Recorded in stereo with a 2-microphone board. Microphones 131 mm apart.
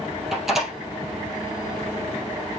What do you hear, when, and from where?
0.3 s a door slam: 5° right (ahead or behind), 3 m